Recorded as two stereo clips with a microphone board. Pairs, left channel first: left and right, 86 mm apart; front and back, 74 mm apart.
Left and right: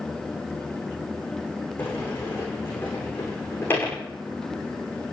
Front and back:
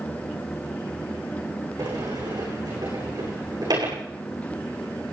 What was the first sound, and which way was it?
A sliding door, 155° left.